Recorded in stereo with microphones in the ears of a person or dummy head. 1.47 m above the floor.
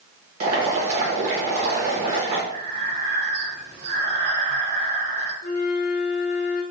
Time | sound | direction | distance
0.4 | boiling | 40° right (ahead or behind) | 1.3 m
2.5 | breathing | 60° right (ahead or behind) | 1.3 m
5.4 | a flute | 45° left (ahead or behind) | 0.7 m